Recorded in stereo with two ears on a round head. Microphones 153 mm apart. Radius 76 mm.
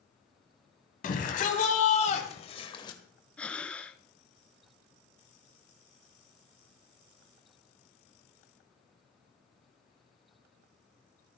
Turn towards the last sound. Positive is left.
turn(degrees=10)  # may be behind; listen again after turning